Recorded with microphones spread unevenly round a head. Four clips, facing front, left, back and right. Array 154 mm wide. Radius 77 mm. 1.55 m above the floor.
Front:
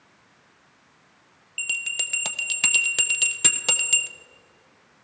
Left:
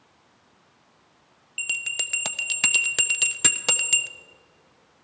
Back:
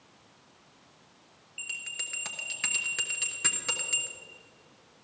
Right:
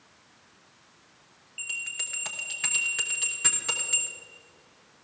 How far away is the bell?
About 0.7 m.